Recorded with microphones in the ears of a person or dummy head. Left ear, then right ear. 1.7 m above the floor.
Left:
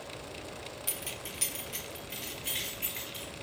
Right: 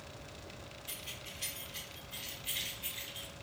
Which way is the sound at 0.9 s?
55° left (ahead or behind).